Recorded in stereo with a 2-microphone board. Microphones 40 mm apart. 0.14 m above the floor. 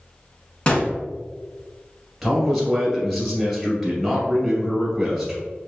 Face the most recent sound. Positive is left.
turn(degrees=5)  # may be behind; listen again after turning